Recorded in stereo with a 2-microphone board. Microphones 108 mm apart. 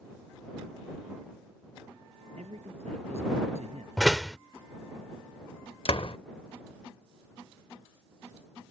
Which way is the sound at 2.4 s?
85° right.